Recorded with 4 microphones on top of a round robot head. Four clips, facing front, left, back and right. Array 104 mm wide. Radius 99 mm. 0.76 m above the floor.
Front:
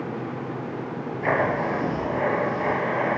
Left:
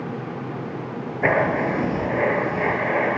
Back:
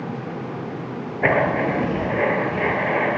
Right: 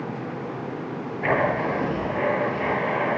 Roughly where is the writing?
Behind left.